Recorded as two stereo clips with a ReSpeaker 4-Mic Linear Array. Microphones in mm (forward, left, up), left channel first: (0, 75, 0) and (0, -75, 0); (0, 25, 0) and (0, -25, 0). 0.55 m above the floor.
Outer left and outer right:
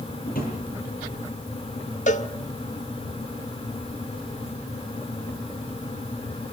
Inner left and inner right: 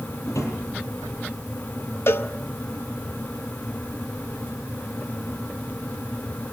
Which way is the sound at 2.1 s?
55° left (ahead or behind).